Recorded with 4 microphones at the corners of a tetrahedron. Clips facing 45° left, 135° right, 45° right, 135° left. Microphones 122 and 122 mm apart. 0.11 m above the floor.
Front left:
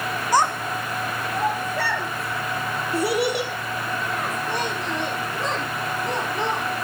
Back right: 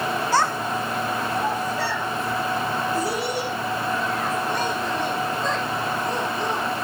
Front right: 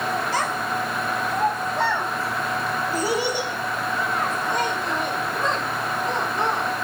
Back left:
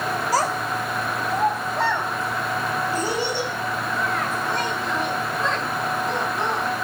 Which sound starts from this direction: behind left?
A child speaking, at 0.3 s.